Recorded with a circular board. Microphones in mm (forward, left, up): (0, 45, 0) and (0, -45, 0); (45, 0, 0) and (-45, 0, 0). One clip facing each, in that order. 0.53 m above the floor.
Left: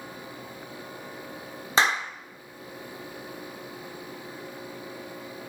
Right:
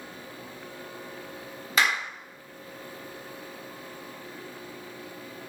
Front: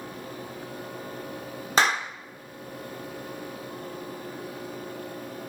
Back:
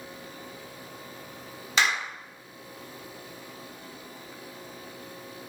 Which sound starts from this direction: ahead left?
A clap, at 1.8 s.